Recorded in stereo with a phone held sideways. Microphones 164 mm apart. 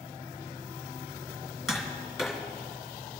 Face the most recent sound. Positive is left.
turn(degrees=0)  # may be behind; listen again after turning